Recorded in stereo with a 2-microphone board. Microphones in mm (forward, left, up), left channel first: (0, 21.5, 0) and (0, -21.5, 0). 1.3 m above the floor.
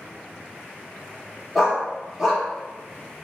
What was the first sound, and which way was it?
A dog barking, 5° right (ahead or behind).